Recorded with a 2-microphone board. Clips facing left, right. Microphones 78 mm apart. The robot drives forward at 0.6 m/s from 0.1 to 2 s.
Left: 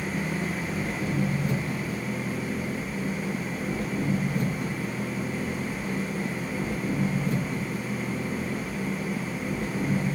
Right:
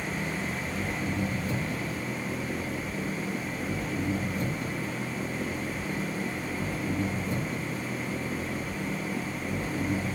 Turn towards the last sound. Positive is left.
turn(degrees=70)  # may be behind; listen again after turning